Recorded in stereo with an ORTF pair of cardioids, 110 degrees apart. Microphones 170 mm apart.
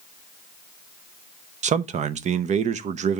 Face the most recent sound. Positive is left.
turn(degrees=-45)